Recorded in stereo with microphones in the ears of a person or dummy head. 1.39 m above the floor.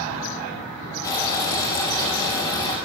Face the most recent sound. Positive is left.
turn(degrees=20)  # may be behind; listen again after turning